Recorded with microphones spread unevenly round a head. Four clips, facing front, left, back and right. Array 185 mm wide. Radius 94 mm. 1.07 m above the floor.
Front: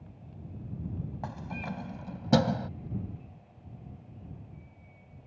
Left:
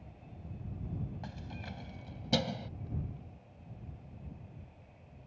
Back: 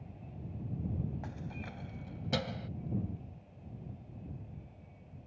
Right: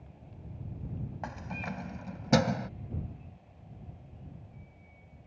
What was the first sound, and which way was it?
Keys jangling, 25° right.